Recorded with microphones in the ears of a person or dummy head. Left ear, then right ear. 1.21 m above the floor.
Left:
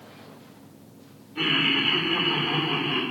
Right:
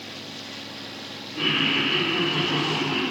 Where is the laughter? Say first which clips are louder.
Even; 45° left (ahead or behind), 3.5 m; by 3.0 s 60° left (ahead or behind), 3.5 m.